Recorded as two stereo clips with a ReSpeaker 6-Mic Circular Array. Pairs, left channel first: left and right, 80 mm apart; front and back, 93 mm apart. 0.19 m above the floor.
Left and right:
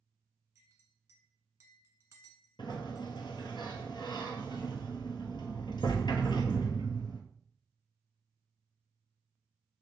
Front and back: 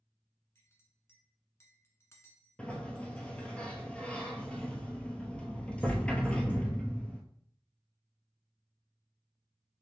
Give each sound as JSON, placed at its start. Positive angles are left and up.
{"t": 0.6, "sound": "a clink", "azimuth_deg": -45, "distance_m": 1.2}
{"t": 2.6, "sound": "a sliding door", "azimuth_deg": 75, "distance_m": 0.7}